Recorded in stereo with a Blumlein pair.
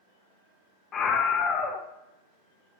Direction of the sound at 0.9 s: 30° left.